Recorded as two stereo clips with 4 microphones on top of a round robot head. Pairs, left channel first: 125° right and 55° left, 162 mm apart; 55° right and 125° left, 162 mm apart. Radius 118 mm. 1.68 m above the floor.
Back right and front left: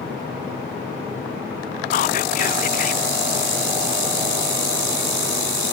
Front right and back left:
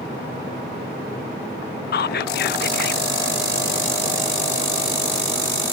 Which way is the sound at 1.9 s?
80° right.